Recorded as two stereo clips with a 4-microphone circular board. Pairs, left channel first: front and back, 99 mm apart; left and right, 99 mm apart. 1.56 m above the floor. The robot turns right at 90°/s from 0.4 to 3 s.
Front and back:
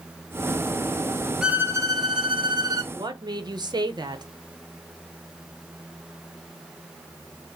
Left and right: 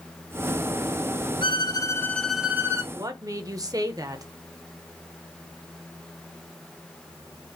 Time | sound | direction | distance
1.4 | a violin | 95° left | 0.7 m
2.9 | a woman speaking | 145° right | 0.8 m